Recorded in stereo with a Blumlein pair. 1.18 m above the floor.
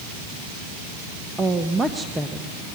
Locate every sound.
1.4 s a woman speaking: 10° right, 1.2 m